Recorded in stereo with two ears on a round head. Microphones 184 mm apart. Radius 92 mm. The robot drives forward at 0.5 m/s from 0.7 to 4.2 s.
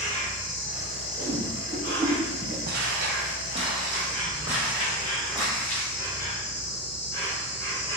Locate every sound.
0.0 s an insect: 35° left (ahead or behind), 1.0 m; by 8.0 s 15° left (ahead or behind), 2.5 m
1.2 s a whoosh: 25° right (ahead or behind), 1.1 m; by 2.6 s 15° right (ahead or behind), 1.5 m
2.7 s footsteps: 50° right (ahead or behind), 1.1 m; by 5.9 s 5° left (ahead or behind), 2.5 m